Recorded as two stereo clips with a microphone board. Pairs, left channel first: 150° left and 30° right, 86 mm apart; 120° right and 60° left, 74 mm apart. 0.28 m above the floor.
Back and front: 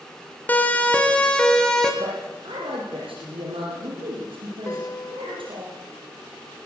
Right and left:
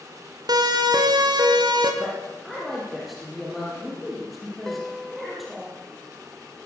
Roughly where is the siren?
Left.